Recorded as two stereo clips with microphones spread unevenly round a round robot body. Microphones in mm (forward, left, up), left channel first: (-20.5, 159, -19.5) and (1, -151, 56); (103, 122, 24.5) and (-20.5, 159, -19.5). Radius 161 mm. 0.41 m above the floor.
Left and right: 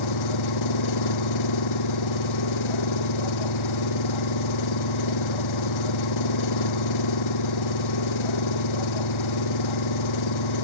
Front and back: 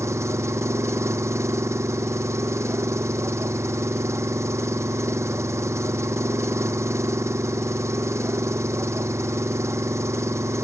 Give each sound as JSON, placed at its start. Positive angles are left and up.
{"t": 0.0, "sound": "an engine running", "azimuth_deg": 95}